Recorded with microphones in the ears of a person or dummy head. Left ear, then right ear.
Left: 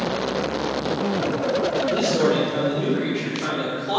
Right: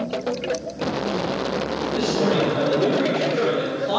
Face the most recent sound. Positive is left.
turn(degrees=-50)  # may be behind; listen again after turning